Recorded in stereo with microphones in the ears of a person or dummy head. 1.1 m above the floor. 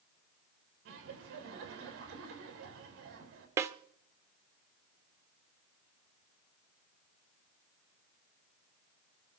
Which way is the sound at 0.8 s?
75° right (ahead or behind).